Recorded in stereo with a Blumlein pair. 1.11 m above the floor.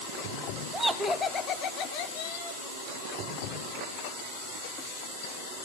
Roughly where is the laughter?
Ahead.